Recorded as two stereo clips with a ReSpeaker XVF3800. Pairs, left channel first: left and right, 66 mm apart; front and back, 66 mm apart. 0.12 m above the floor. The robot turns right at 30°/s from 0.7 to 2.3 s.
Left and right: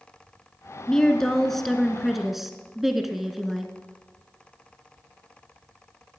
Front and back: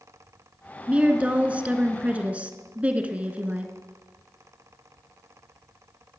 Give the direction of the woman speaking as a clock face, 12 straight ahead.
7 o'clock.